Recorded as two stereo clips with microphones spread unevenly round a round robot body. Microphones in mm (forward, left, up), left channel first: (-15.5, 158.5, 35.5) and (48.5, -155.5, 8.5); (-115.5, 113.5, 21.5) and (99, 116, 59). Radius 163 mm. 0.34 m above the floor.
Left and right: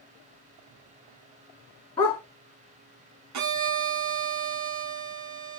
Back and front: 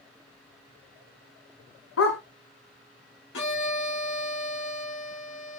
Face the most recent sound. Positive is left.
turn(degrees=-125)